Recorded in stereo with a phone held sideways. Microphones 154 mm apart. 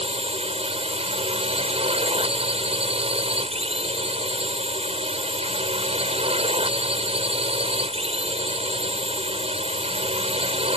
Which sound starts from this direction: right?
A drone, at 0.0 s.